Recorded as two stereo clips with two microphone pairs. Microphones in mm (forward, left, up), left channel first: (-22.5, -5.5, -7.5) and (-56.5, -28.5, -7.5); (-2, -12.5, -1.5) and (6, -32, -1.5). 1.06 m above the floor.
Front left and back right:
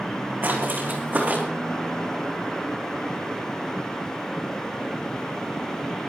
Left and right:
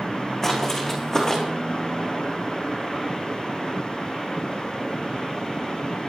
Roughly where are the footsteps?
Behind.